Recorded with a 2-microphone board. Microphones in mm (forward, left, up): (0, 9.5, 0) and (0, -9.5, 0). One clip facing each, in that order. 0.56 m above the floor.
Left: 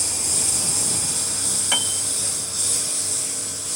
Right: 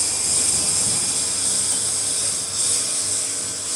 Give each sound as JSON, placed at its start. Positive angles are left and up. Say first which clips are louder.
{"t": 0.0, "sound": "a lawn mower", "louder": "right 1 dB", "side_deg": 0}
{"t": 1.7, "sound": "a piano", "louder": "left 4 dB", "side_deg": 60}